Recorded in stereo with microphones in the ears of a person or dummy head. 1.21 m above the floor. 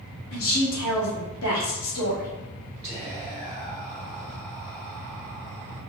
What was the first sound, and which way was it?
A woman speaking, 75° left (ahead or behind).